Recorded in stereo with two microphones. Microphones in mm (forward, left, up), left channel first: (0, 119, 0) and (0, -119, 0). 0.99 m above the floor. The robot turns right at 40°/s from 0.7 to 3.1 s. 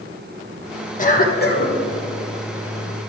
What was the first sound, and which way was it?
A cough, 50° left.